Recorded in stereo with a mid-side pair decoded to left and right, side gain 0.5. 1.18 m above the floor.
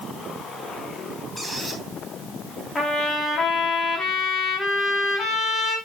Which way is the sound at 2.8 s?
45° left.